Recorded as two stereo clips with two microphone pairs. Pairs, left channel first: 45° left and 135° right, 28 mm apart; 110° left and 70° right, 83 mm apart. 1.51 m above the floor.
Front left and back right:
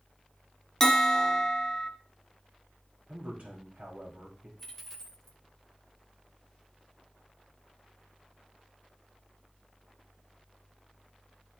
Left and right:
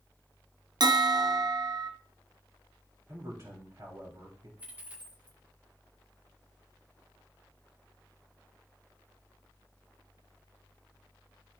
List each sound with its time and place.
0.8 s a bell: 30° right, 0.7 m
3.1 s a man speaking: 105° right, 2.5 m
4.6 s a dropped coin: 15° right, 1.0 m